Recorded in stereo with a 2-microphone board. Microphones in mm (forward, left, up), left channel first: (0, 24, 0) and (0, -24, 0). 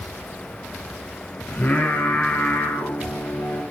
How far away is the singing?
About 3 m.